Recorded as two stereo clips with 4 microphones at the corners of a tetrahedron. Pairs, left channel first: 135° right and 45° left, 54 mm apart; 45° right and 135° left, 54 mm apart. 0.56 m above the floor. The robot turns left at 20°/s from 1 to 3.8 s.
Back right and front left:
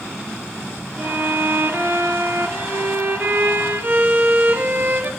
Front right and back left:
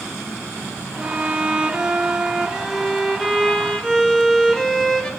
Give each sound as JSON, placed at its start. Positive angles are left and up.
{"t": 1.0, "sound": "a violin", "azimuth_deg": 80, "distance_m": 1.1}